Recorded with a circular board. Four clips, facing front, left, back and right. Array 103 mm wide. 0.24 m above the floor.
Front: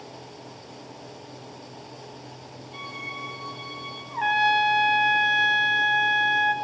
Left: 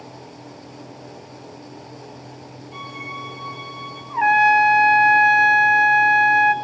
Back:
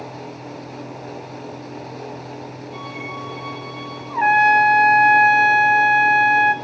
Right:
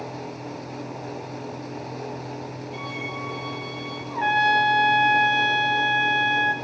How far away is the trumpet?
About 1.1 m.